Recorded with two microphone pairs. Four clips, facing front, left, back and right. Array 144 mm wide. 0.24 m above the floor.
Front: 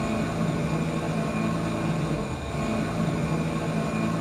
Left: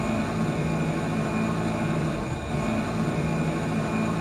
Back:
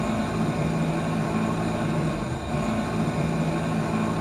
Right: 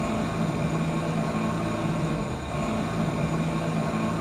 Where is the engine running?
145° left, 1.4 m.